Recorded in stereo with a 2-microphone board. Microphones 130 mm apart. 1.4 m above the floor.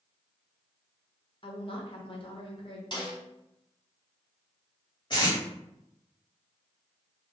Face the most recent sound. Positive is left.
turn(degrees=40)  # may be behind; listen again after turning